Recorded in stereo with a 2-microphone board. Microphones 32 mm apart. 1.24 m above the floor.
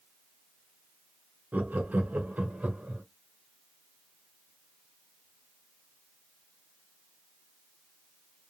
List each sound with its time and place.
1.5 s laughter: 60° right (ahead or behind), 0.8 m; by 3.0 s 50° right (ahead or behind), 1.2 m